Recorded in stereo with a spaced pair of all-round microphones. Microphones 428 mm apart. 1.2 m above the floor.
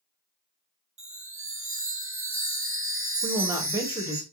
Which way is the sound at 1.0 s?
30° right (ahead or behind).